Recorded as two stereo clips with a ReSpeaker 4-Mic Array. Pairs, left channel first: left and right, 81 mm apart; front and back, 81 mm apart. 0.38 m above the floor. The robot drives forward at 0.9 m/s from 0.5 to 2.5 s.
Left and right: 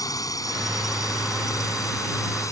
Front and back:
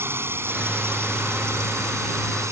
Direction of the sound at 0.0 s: 125° left.